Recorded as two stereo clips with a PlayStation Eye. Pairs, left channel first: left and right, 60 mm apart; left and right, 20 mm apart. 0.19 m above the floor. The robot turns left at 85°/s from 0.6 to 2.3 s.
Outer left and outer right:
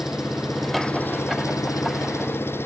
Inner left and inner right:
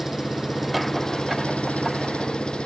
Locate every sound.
0.0 s an engine running: 175° right; by 2.7 s 40° left